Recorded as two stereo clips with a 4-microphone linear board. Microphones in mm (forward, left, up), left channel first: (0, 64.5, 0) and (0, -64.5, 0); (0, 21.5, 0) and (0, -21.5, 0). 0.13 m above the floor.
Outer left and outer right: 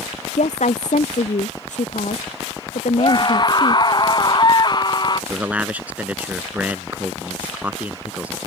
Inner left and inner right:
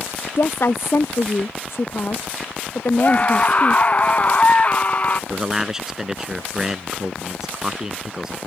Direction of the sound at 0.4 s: 65° left (ahead or behind).